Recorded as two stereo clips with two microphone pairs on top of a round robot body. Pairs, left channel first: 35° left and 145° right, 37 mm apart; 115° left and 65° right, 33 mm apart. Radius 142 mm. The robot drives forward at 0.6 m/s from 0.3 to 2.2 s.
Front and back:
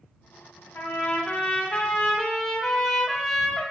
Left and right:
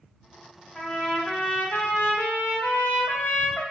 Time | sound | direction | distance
0.8 | a trumpet | 45° left | 0.9 m